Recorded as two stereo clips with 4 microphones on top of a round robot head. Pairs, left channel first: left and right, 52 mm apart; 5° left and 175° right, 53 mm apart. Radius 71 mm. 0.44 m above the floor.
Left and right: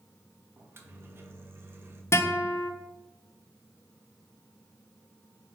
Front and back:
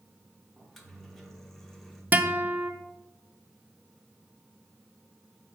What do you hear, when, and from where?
0.6 s a microwave: 80° right, 0.8 m
2.1 s a guitar: 125° left, 0.7 m